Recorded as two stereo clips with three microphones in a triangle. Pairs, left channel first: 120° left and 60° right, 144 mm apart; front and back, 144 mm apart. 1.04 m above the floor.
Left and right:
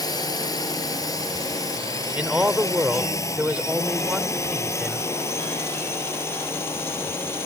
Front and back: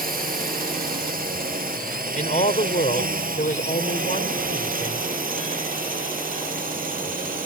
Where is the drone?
175° right; by 7.5 s 165° right.